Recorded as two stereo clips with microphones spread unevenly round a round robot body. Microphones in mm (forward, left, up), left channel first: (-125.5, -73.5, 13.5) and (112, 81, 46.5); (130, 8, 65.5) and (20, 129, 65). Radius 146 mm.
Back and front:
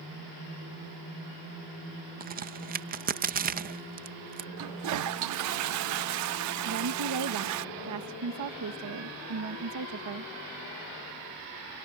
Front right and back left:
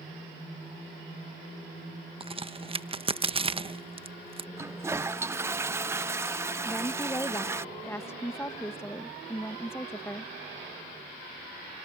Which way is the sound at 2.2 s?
90° left.